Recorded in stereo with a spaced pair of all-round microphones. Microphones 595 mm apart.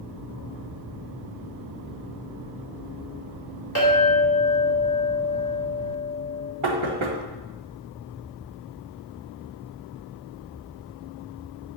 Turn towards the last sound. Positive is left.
turn(degrees=-55)  # may be behind; listen again after turning